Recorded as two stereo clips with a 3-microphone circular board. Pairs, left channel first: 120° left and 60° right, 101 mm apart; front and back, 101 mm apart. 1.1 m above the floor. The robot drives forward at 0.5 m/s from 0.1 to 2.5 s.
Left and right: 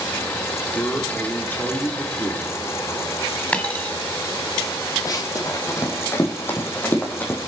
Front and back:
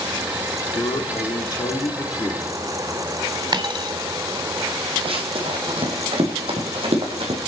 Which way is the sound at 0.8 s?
45° left.